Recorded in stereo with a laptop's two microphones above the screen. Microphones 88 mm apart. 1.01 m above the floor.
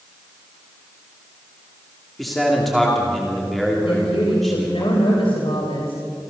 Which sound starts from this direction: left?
A woman speaking, at 3.8 s.